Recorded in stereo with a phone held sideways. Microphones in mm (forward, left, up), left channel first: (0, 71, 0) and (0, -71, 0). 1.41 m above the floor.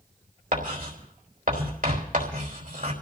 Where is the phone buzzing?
No phone buzzing in this recording.